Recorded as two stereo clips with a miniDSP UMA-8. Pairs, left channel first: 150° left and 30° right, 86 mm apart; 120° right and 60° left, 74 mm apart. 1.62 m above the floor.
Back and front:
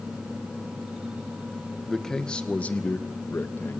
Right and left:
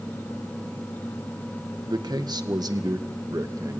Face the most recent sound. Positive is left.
turn(degrees=95)